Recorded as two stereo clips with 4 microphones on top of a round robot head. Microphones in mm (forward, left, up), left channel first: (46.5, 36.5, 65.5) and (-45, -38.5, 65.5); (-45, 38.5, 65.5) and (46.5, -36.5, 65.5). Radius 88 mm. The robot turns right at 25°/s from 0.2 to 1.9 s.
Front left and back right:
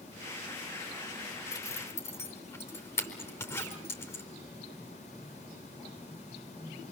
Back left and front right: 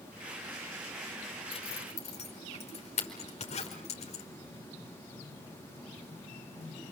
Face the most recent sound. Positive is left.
turn(degrees=110)